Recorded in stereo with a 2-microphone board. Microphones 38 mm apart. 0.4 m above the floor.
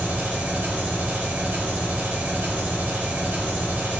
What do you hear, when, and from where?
0.0 s an engine running: 60° right (ahead or behind), 0.8 m